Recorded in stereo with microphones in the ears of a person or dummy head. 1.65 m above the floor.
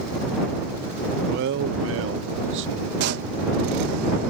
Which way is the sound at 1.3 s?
60° right (ahead or behind).